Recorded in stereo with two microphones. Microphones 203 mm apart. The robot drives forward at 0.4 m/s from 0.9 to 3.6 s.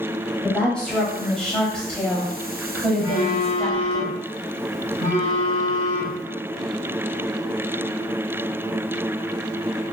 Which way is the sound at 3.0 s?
40° left (ahead or behind).